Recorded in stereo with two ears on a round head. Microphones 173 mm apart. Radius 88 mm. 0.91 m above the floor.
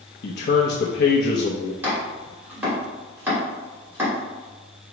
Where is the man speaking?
55° left (ahead or behind), 0.6 m.